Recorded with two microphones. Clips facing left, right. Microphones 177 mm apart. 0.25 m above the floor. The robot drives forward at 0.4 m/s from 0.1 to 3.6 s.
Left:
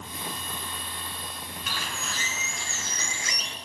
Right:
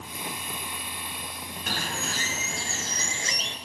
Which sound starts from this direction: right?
A bird, at 1.7 s.